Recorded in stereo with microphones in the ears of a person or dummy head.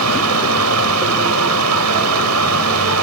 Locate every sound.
0.0 s a fan: 85° right